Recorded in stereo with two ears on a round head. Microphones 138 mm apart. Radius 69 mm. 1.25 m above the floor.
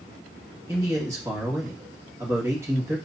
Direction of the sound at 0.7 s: 15° right (ahead or behind).